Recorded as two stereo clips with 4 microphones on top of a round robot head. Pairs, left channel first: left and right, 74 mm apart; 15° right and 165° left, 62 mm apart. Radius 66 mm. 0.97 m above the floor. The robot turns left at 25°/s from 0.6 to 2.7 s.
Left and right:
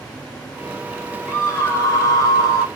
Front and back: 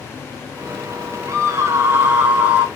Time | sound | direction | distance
1.3 | a scream | 135° left | 1.5 m